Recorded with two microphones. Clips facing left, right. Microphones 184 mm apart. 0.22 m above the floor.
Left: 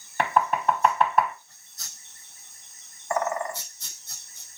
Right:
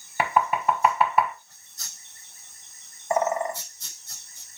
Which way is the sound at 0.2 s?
5° right (ahead or behind).